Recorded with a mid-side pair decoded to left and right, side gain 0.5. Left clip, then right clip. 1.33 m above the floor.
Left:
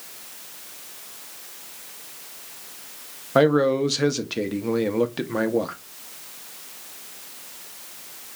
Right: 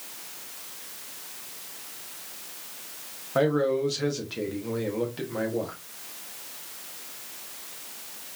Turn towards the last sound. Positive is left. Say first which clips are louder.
# left 6 dB
turn(degrees=50)